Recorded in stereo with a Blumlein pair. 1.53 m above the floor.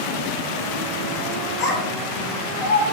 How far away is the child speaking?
About 1.7 m.